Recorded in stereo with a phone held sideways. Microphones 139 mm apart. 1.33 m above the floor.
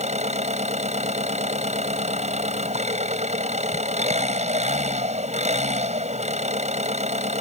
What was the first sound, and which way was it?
An engine running, 55° right (ahead or behind).